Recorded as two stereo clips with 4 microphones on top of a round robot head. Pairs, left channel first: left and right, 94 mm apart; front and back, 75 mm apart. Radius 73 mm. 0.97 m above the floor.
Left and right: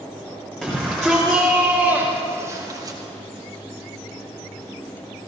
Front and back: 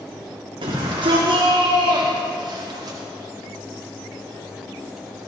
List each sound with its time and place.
0.6 s a shout: 175° left, 2.5 m; by 3.0 s 135° right, 1.6 m